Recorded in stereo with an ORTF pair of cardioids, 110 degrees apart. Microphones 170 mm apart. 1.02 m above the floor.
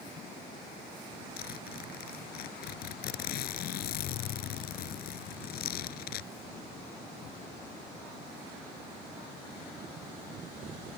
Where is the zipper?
65° left.